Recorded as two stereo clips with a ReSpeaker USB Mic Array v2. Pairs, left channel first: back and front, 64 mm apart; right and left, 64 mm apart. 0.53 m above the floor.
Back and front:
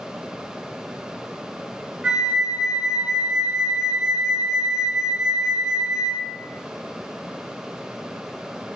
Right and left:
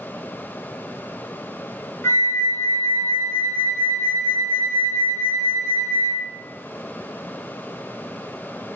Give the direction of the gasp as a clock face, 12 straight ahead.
I don't hear a gasp.